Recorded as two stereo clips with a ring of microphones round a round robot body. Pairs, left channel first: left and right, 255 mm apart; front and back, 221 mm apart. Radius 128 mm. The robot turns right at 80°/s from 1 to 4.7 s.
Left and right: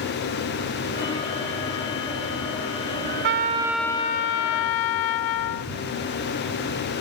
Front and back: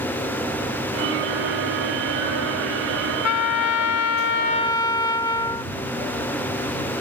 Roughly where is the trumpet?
Ahead right.